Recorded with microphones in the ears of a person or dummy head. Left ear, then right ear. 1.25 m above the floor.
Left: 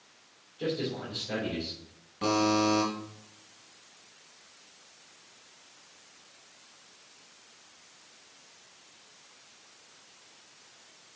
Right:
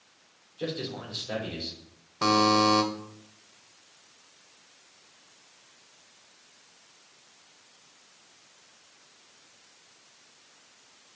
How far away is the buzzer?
About 1.7 m.